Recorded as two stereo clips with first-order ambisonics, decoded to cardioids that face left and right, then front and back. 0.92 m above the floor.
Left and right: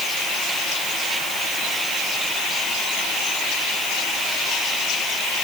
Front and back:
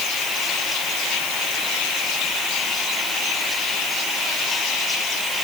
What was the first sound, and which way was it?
Only background noise.